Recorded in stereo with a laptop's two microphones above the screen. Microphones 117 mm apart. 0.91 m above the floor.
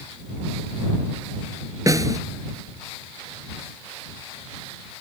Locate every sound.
1.9 s a snare drum: 30° right (ahead or behind)